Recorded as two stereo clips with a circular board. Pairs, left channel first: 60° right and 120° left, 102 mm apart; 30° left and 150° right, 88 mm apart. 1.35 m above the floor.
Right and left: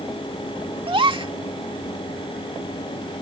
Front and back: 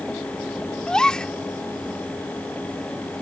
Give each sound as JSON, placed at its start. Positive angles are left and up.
{"t": 0.9, "sound": "a gasp", "azimuth_deg": 110}